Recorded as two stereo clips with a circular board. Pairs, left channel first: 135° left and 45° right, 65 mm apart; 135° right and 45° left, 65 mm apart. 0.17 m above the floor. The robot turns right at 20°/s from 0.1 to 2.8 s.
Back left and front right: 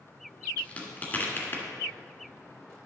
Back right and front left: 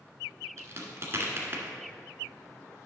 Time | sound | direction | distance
0.6 | a crack | 70° left | 1.7 m